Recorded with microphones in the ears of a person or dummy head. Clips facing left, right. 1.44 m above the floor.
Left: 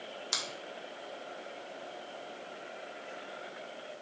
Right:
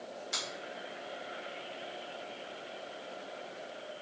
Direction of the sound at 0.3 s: 75° left (ahead or behind).